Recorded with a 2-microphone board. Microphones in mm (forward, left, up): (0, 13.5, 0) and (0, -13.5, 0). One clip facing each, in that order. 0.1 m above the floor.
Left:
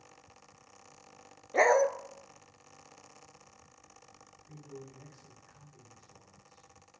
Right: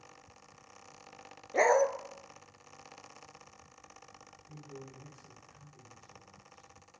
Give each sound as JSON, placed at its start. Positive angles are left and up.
{"t": 1.5, "sound": "a dog barking", "side_deg": 10, "distance_m": 0.6}
{"t": 4.5, "sound": "a man speaking", "side_deg": 60, "distance_m": 4.5}